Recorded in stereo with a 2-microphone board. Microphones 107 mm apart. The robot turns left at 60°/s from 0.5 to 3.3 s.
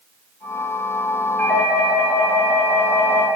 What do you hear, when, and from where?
1.4 s a doorbell: 165° left, 3.5 m; by 3.3 s 50° left, 3.5 m